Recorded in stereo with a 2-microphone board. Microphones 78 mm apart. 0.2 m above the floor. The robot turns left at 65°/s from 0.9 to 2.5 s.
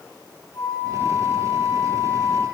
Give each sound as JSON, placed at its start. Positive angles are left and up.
{"t": 0.5, "sound": "a flute", "azimuth_deg": 130, "distance_m": 5.5}